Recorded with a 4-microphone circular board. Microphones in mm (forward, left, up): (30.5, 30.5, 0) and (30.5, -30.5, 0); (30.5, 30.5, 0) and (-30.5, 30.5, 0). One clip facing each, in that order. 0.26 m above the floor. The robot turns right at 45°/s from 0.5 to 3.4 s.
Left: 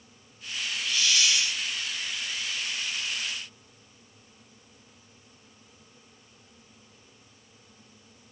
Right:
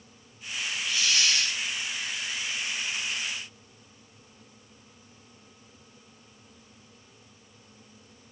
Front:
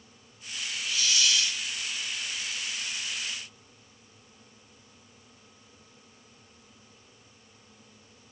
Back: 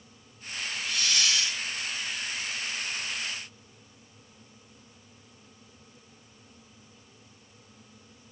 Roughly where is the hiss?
Behind.